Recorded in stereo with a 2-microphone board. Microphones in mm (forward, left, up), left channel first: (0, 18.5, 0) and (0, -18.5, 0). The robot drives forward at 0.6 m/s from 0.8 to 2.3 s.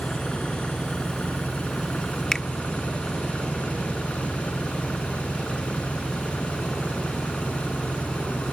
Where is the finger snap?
15° left (ahead or behind).